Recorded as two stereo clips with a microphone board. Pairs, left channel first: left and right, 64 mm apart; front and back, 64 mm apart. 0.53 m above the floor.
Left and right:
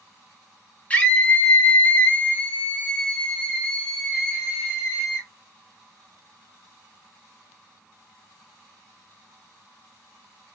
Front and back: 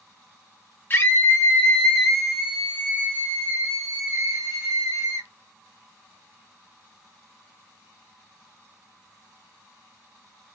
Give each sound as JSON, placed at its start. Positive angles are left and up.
{"t": 0.9, "sound": "a scream", "azimuth_deg": 30, "distance_m": 1.6}